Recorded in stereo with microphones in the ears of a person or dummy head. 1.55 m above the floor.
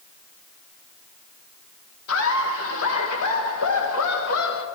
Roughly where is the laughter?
Left.